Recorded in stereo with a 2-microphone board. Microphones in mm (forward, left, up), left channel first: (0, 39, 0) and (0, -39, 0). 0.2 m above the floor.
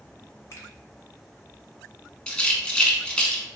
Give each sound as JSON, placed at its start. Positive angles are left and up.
{"t": 0.5, "sound": "a finger snap", "side_deg": 40, "distance_m": 1.2}
{"t": 2.3, "sound": "a rattle", "side_deg": 15, "distance_m": 0.5}